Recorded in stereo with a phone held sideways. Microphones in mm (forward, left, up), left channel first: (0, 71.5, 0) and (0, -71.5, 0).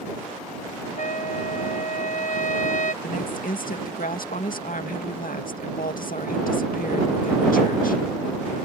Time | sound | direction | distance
1.0 | a trumpet | 60° left (ahead or behind) | ?
3.0 | a woman speaking | 75° left (ahead or behind) | ?